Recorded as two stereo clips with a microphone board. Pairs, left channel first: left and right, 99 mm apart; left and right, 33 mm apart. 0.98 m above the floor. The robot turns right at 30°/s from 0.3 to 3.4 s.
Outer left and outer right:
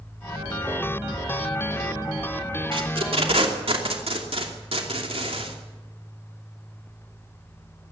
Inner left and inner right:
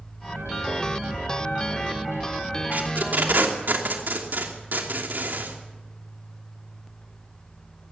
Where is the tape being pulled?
65° right (ahead or behind), 2.5 m; by 5.6 s 75° right (ahead or behind), 2.5 m.